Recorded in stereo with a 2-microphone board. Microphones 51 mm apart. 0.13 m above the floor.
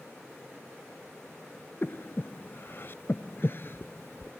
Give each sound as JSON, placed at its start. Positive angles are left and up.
{"t": 1.8, "sound": "breathing", "side_deg": 45}